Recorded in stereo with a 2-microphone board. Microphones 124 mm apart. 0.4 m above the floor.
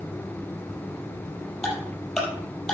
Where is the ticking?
5° left (ahead or behind), 5 m.